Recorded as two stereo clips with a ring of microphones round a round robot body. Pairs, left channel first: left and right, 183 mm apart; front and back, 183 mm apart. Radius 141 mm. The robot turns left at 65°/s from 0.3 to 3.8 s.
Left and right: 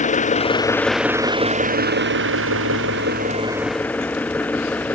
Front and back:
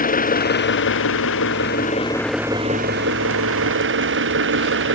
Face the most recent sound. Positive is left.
turn(degrees=175)